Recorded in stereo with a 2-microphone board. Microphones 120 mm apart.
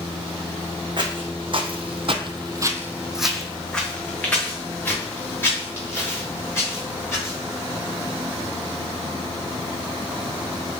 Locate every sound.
1.0 s footsteps: 45° right (ahead or behind), 1.1 m; by 7.4 s 25° left (ahead or behind), 3.5 m